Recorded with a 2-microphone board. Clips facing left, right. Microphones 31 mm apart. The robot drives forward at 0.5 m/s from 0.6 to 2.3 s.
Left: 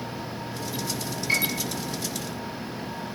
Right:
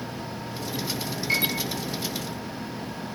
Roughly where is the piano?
Centre.